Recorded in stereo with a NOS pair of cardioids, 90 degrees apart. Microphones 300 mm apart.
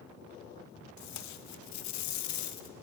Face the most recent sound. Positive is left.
turn(degrees=70)